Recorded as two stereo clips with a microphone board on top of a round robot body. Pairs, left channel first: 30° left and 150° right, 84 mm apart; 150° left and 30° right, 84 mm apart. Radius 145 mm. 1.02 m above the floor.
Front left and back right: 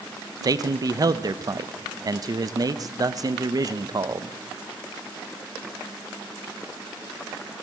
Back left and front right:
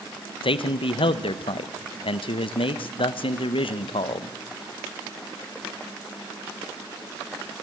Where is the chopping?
No chopping in this recording.